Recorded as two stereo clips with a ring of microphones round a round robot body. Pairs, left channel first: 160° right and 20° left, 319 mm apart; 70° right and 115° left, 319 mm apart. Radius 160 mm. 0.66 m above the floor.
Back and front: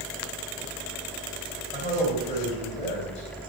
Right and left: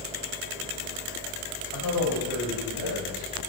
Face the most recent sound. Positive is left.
turn(degrees=-90)